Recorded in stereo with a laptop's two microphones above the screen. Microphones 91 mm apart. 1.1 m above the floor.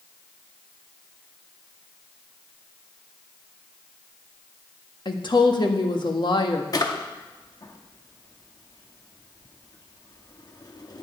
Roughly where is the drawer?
Left.